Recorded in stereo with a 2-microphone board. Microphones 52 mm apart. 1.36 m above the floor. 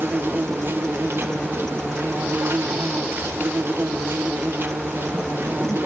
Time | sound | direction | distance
0.0 | an insect | 50° right (ahead or behind) | 1.6 m